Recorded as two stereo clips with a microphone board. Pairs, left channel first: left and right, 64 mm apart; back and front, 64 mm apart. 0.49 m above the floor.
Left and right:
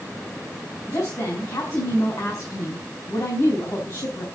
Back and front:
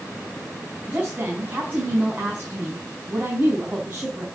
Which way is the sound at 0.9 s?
60° left.